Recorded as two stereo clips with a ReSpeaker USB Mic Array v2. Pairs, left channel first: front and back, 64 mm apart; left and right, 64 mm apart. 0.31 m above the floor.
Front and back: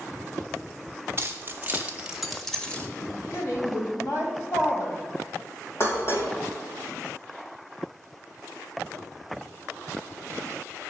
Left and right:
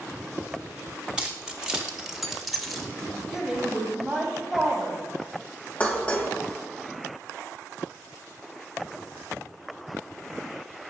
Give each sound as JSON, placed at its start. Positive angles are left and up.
{"t": 1.2, "sound": "keys jangling", "azimuth_deg": -165, "distance_m": 1.1}
{"t": 3.0, "sound": "a woman speaking", "azimuth_deg": -15, "distance_m": 1.7}
{"t": 5.8, "sound": "dishes clattering", "azimuth_deg": 30, "distance_m": 1.0}